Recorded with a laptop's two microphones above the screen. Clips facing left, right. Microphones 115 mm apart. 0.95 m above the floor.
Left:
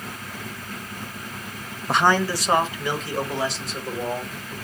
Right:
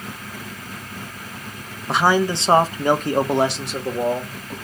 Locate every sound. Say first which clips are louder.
1.9 s a man speaking: right 2 dB; 5° left (ahead or behind), 0.8 m; by 4.5 s 75° right (ahead or behind), 1.8 m